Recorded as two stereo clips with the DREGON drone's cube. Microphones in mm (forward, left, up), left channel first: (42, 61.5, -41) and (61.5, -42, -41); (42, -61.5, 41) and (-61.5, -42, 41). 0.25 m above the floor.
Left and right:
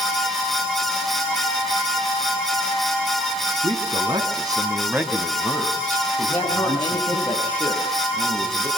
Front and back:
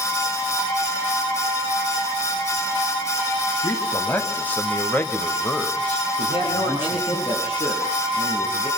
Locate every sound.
3.6 s a man speaking: 85° right, 2.5 m; by 7.2 s 75° left, 2.5 m
6.2 s a man speaking: 30° left, 6 m